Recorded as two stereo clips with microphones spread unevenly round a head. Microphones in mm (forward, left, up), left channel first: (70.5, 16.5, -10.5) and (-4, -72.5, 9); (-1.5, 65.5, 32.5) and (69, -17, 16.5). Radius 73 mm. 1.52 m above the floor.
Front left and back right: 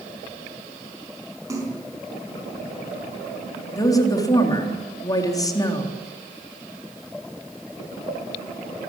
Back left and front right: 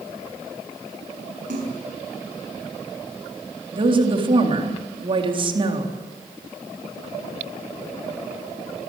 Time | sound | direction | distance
1.5 | a splash | 70° right | 6 m
3.7 | a woman speaking | 10° right | 3.5 m